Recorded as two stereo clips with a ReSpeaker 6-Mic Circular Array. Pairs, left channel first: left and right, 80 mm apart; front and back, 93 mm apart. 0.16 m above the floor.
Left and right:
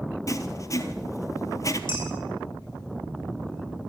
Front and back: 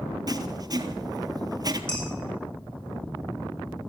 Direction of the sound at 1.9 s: 80° left.